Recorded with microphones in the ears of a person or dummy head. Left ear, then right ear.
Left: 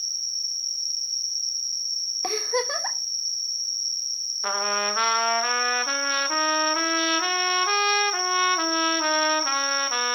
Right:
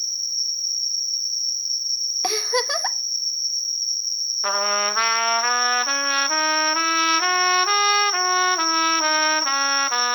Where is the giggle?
35° right (ahead or behind), 1.1 m.